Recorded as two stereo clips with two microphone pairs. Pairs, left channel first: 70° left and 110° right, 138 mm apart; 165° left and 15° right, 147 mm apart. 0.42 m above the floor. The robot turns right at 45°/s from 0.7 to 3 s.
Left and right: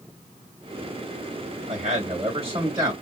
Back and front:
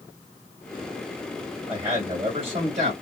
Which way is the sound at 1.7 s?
85° right.